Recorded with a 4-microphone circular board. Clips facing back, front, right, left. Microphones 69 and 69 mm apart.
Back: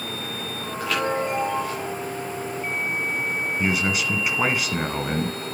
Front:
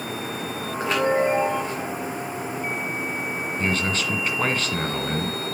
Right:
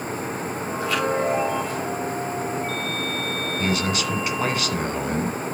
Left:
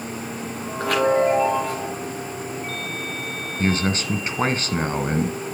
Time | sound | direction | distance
0.8 | a chime | 60° left | 4.5 m
3.6 | a man speaking | 110° left | 1.7 m